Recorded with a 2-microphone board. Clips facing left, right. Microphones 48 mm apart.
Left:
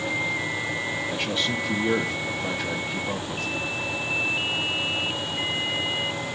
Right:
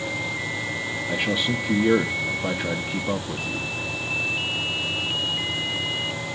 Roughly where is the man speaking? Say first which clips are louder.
Right 6 dB; centre.